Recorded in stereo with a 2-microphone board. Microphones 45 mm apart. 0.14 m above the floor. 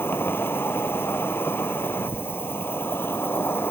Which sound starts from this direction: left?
An insect, at 0.0 s.